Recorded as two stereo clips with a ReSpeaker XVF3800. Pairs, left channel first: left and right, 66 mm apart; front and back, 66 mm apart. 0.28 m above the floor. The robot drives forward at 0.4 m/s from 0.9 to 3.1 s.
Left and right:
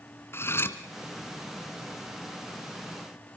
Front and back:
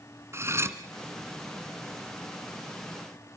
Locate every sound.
0.3 s cutlery clinking: 140° left, 2 m